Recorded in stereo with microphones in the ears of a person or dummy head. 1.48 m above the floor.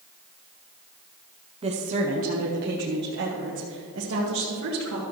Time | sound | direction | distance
1.6 | a woman speaking | 30° right (ahead or behind) | 0.8 m